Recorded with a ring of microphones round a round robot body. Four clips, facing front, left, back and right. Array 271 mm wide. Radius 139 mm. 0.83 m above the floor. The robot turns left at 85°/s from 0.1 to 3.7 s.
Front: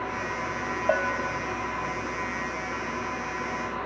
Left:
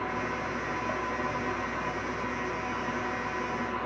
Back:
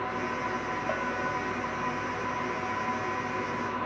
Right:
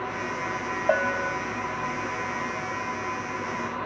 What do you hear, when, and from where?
0.9 s a bell: 50° right; by 1.4 s 90° right